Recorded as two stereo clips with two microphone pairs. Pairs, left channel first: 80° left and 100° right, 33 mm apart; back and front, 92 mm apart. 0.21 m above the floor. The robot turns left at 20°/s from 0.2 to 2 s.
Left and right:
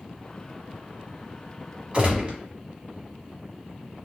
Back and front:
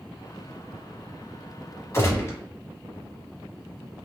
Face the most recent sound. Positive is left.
turn(degrees=-140)